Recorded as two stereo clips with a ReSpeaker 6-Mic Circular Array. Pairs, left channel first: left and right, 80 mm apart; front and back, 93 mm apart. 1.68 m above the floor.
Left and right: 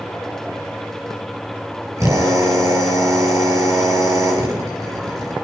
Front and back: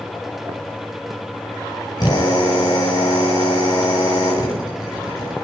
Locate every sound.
2.0 s a drill: 45° right, 8.5 m